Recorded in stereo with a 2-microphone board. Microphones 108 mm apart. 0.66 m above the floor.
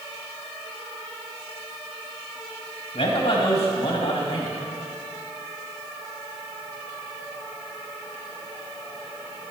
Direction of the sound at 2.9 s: 65° left (ahead or behind).